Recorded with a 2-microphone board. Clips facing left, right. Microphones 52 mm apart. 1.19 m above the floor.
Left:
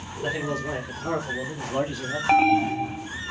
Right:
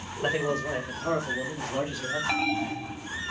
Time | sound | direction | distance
0.2 | a man speaking | 30° right (ahead or behind) | 0.6 m
2.3 | an alarm | 30° left (ahead or behind) | 0.5 m